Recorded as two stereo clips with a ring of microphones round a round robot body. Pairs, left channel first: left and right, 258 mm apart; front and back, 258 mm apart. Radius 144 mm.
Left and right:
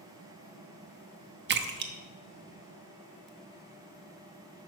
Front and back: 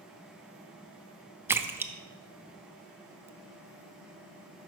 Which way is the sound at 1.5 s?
100° right.